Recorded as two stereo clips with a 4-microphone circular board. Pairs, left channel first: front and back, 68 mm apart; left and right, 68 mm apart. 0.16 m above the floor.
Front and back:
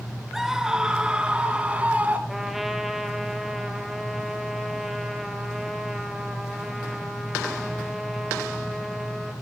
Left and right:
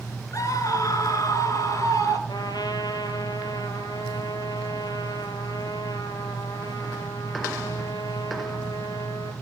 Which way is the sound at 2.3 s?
90° left.